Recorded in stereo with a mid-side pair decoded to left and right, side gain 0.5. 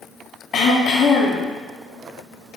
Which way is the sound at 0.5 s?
50° left.